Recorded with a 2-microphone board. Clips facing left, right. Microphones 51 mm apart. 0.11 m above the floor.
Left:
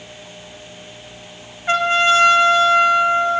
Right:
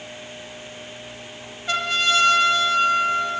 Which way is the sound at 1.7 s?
30° left (ahead or behind).